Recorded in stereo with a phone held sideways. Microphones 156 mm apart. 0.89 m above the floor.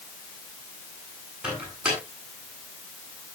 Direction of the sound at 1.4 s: 5° right (ahead or behind).